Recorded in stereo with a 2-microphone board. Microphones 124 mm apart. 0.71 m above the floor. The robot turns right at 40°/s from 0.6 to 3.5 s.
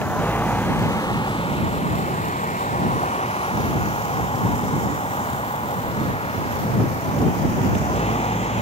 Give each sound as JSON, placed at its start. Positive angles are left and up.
{"t": 0.0, "sound": "a vehicle", "side_deg": 15}